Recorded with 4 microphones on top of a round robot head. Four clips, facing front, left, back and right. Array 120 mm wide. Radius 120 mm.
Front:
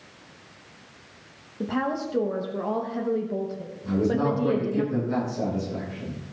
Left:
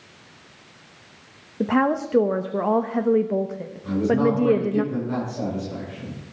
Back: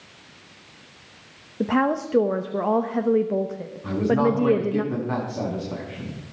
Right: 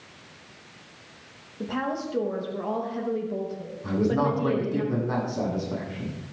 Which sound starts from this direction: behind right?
A man speaking, at 3.8 s.